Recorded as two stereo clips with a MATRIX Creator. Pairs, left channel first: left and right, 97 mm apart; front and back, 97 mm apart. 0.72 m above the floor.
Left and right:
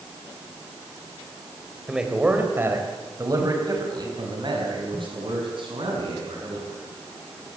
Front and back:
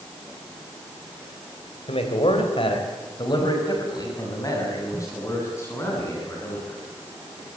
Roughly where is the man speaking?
Ahead.